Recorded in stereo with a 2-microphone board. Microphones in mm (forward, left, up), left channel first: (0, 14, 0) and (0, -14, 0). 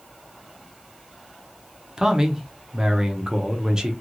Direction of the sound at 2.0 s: 25° right (ahead or behind).